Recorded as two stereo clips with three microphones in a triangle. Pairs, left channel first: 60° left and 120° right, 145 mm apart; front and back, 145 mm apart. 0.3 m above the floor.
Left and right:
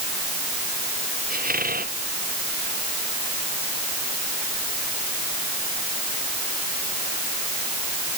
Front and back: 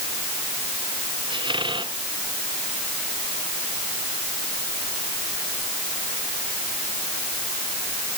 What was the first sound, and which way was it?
A squeak, 125° right.